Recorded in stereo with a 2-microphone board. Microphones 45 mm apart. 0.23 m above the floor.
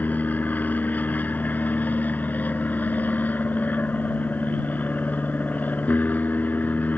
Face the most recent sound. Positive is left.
turn(degrees=45)  # may be behind; listen again after turning